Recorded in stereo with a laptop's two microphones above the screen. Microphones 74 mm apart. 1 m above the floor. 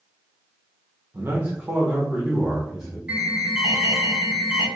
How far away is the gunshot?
No gunshot in this recording.